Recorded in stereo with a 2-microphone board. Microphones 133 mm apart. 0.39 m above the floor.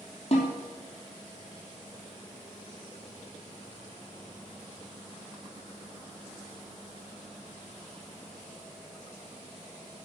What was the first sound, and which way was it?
A snare drum, 50° left (ahead or behind).